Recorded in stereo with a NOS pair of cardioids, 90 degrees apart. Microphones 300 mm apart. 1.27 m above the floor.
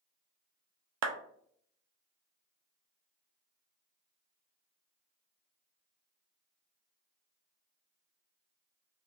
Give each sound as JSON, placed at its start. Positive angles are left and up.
{"t": 1.0, "sound": "a clap", "azimuth_deg": -65, "distance_m": 0.5}